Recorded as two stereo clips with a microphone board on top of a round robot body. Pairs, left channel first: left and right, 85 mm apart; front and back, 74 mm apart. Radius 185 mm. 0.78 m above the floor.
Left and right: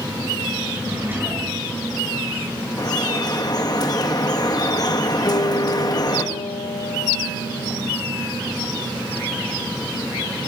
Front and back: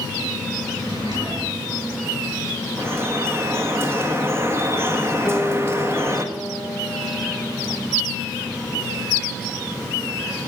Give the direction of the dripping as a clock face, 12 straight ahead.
8 o'clock.